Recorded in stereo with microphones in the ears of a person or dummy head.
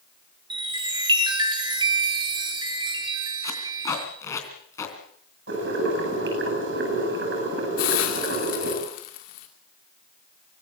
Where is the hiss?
55° left (ahead or behind), 2.5 m.